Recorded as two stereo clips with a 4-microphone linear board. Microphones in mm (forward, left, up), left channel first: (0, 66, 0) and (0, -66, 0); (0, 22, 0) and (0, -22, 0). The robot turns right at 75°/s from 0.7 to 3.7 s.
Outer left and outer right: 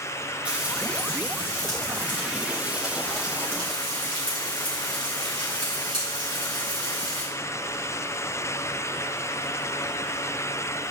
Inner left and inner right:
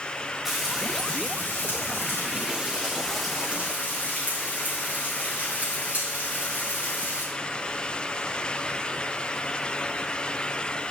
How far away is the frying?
About 3 m.